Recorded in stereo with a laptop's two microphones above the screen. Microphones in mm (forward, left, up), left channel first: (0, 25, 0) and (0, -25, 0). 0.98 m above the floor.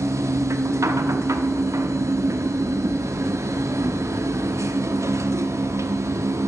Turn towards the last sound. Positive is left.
turn(degrees=-70)  # may be behind; listen again after turning